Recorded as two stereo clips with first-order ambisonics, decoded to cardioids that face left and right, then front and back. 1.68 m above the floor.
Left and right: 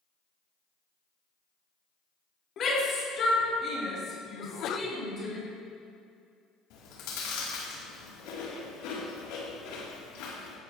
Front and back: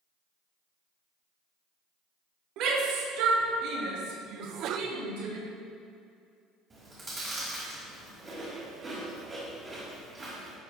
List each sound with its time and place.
2.6 s a shout: 145° left, 3.5 m; by 5.4 s 160° left, 5.5 m
4.4 s a sneeze: 135° left, 0.7 m
6.7 s chewing: 105° left, 3.5 m